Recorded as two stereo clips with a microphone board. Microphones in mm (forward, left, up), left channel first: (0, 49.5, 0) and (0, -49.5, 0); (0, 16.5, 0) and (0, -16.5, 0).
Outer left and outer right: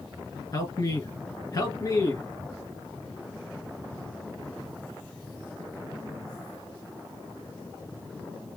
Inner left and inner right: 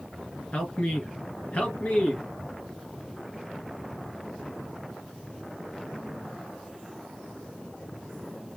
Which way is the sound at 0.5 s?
40° left (ahead or behind).